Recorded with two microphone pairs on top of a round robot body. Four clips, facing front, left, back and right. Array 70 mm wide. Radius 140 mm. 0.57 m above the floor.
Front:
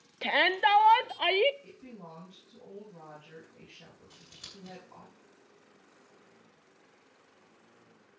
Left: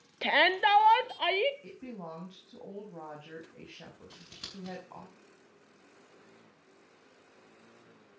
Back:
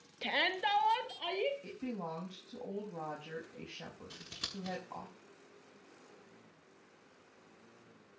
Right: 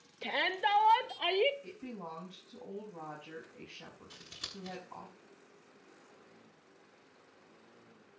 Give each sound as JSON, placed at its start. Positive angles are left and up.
{"t": 0.2, "sound": "a shout", "azimuth_deg": 55, "distance_m": 1.2}
{"t": 1.6, "sound": "a woman speaking", "azimuth_deg": 150, "distance_m": 6.0}
{"t": 4.1, "sound": "scissors", "azimuth_deg": 170, "distance_m": 8.5}